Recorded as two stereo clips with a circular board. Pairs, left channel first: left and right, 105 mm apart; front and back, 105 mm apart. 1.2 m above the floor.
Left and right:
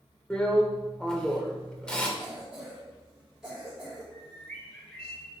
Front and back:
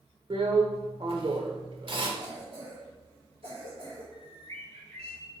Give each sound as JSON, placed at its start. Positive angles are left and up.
{"t": 0.3, "sound": "a drill", "azimuth_deg": 170, "distance_m": 1.3}
{"t": 2.2, "sound": "a cough", "azimuth_deg": -175, "distance_m": 4.0}
{"t": 4.1, "sound": "a bird", "azimuth_deg": 170, "distance_m": 3.5}